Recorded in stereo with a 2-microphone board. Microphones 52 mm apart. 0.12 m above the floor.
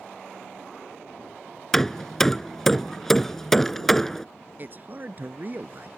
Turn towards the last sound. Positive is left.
turn(degrees=-40)  # may be behind; listen again after turning